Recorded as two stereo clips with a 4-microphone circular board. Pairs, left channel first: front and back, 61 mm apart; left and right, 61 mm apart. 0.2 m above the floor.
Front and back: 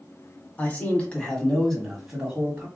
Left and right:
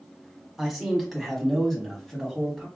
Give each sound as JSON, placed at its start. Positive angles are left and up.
{"t": 0.6, "sound": "a man speaking", "azimuth_deg": -5, "distance_m": 1.7}